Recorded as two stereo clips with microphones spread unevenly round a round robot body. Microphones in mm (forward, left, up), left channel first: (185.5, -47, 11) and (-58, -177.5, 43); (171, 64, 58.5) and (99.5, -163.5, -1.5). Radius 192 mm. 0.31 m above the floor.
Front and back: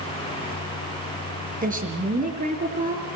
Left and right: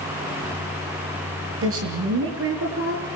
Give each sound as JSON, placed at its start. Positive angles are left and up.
{"t": 1.6, "sound": "a woman speaking", "azimuth_deg": -90, "distance_m": 5.5}